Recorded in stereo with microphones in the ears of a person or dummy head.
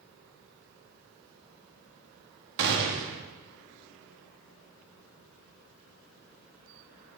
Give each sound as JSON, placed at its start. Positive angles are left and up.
{"t": 2.6, "sound": "a gunshot", "side_deg": -70, "distance_m": 1.8}